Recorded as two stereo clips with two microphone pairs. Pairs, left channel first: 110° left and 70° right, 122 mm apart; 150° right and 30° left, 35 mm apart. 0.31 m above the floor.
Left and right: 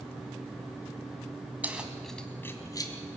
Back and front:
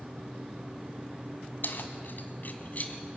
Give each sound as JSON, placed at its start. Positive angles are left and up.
{"t": 1.6, "sound": "keys jangling", "azimuth_deg": -145, "distance_m": 1.9}